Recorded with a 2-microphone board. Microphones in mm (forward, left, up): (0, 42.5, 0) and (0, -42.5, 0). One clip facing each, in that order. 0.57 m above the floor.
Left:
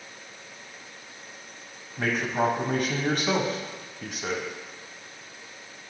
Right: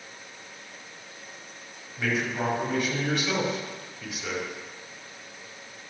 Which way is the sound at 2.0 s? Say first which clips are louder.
Left 3 dB; 50° left (ahead or behind).